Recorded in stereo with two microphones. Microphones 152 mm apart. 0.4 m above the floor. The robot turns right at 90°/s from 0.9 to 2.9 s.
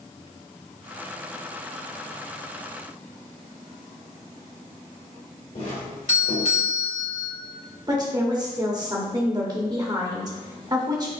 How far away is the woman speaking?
About 0.9 m.